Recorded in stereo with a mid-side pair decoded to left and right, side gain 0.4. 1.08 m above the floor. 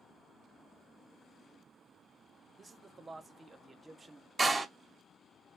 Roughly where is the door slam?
Ahead right.